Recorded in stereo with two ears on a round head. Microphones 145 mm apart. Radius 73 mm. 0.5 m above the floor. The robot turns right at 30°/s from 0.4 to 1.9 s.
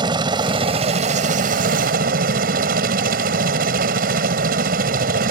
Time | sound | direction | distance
0.0 | a helicopter | 145° right | ?